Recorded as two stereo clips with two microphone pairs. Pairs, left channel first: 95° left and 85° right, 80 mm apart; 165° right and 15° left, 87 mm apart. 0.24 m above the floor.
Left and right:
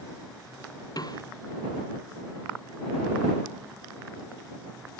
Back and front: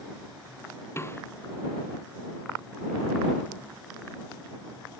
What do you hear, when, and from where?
1.0 s a snare drum: 130° left